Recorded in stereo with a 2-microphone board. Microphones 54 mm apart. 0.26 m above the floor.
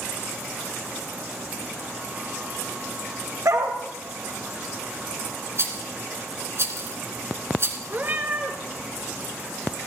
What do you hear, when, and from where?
3.5 s a dog barking: 75° right (ahead or behind), 4.5 m
5.6 s a rattle: 50° right (ahead or behind), 3.5 m
7.9 s a cat meowing: 35° right (ahead or behind), 2.5 m